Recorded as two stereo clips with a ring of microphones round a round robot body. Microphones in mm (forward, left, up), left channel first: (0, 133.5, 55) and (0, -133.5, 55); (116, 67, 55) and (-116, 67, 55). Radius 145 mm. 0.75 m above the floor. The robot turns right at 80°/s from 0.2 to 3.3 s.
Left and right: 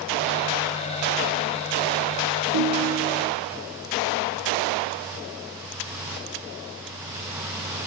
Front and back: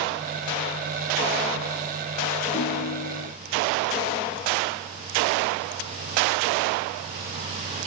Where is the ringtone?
70° right, 1.9 m; by 3.3 s 5° right, 1.9 m.